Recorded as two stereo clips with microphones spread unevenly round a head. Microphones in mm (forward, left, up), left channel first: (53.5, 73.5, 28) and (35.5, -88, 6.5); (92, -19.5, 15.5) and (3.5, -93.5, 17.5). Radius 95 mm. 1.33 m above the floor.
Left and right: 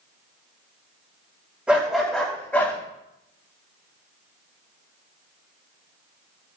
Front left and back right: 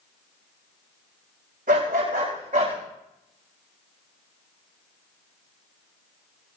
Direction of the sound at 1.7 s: 175° left.